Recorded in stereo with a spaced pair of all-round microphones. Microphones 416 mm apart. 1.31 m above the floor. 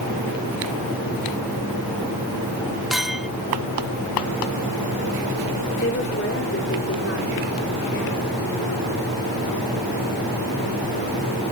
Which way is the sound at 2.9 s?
Centre (ahead or behind).